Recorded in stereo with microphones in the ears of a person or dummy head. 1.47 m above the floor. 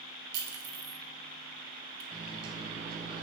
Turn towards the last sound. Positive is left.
turn(degrees=-35)  # may be behind; listen again after turning